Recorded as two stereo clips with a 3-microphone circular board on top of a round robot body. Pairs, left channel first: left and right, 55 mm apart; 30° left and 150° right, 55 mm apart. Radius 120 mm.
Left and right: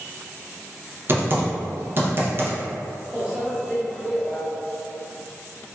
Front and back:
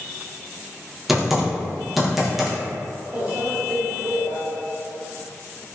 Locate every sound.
1.1 s typing on a keyboard: 65° right, 0.8 m
3.1 s a microwave: 165° right, 1.1 m